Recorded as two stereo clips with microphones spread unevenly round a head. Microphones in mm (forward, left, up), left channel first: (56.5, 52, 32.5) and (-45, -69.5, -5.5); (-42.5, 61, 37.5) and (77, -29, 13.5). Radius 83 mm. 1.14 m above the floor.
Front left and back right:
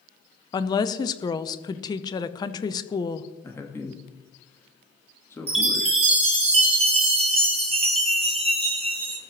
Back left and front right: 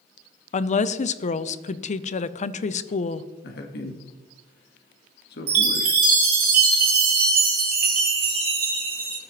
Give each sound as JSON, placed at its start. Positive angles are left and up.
{"t": 0.5, "sound": "a woman speaking", "azimuth_deg": 120, "distance_m": 0.6}
{"t": 3.4, "sound": "a man speaking", "azimuth_deg": 125, "distance_m": 1.4}
{"t": 5.5, "sound": "a chime", "azimuth_deg": -75, "distance_m": 2.5}